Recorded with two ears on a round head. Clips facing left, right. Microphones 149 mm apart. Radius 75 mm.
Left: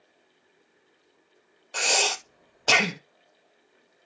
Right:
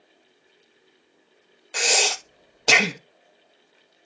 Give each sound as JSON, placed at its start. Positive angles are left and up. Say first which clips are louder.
{"t": 1.7, "sound": "breathing", "louder": "right 2 dB", "side_deg": -10, "distance_m": 0.5}